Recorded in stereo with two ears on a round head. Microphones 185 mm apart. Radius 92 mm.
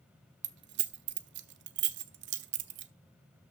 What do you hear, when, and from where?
0.4 s keys jangling: 55° right (ahead or behind), 0.7 m